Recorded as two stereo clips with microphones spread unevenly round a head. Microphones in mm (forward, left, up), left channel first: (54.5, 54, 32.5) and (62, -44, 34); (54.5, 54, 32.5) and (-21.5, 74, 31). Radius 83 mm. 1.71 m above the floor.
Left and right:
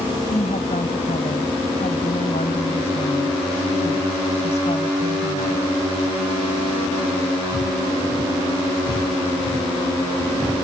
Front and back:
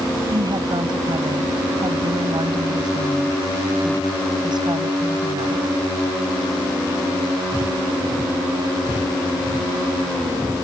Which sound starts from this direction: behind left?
A woman speaking, at 0.3 s.